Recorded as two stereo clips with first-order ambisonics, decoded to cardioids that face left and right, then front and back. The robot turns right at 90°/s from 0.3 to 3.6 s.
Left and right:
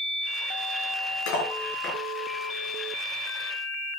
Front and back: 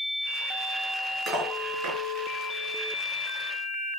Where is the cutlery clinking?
110° left, 6 m; by 2.0 s 175° left, 6 m.